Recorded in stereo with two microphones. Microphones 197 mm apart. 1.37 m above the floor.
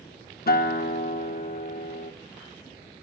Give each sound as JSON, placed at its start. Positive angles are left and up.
{"t": 0.5, "sound": "a guitar", "side_deg": 55, "distance_m": 0.6}